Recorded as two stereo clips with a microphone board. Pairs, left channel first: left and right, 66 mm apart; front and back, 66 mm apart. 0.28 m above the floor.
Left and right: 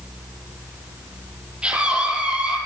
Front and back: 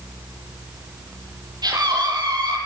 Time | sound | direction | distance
1.6 | a scream | 165° right | 8 m